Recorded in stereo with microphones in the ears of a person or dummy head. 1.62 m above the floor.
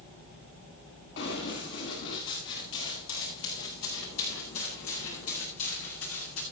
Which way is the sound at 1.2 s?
65° left (ahead or behind).